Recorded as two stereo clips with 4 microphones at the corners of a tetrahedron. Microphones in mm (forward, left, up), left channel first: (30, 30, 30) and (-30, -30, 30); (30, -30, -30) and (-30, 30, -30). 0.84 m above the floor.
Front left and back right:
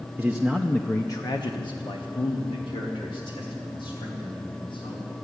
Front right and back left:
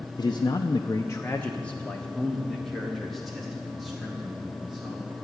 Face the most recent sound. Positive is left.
turn(degrees=50)